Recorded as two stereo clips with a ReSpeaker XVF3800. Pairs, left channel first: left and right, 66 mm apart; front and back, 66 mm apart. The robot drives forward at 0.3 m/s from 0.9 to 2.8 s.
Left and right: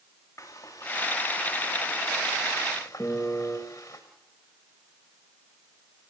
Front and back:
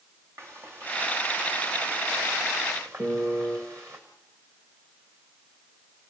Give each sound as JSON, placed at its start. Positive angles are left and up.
{"t": 0.4, "sound": "frying", "azimuth_deg": 130, "distance_m": 4.0}
{"t": 3.0, "sound": "a piano", "azimuth_deg": 150, "distance_m": 1.7}